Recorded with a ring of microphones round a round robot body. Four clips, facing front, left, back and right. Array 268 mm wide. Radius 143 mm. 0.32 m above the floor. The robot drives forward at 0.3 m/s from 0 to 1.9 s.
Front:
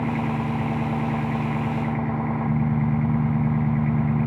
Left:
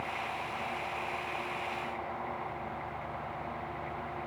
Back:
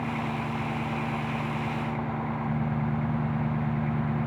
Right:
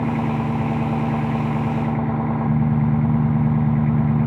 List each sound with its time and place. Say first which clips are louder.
0.0 s an engine running: right 15 dB, front 6 dB; 70° right